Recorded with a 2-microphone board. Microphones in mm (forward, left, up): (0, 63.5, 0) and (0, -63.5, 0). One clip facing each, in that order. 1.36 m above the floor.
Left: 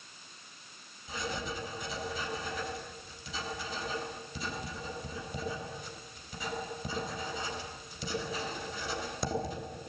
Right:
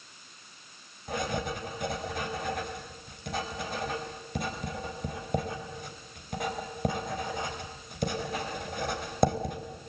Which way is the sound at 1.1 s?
65° right (ahead or behind).